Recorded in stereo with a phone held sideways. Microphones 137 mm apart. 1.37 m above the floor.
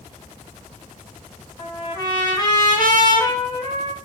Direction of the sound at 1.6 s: 30° left (ahead or behind).